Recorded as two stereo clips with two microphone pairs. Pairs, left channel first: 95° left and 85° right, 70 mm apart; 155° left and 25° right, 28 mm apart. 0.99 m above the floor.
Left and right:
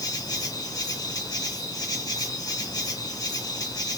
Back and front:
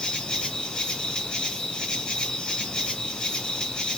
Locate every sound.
0.0 s an insect: 105° left, 2 m